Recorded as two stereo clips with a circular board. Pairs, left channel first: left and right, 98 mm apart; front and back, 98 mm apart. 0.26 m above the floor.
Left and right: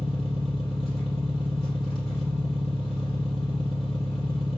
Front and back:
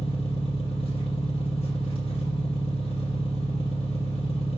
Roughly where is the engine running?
Ahead.